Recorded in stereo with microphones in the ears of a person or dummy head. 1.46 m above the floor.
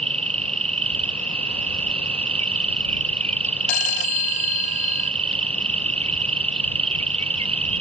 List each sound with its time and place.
0.0 s an insect: 35° right (ahead or behind)
3.7 s a phone ringing: 80° left